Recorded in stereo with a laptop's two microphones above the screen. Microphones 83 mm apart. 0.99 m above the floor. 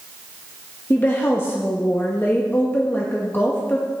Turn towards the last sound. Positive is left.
turn(degrees=25)  # may be behind; listen again after turning